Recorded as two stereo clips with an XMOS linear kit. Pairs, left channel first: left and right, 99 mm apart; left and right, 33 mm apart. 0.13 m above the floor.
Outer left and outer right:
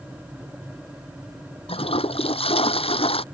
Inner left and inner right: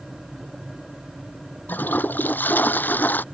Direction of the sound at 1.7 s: 75° left (ahead or behind).